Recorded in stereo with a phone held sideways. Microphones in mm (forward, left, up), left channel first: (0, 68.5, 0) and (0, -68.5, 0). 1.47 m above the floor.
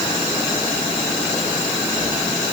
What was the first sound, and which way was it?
Only background noise.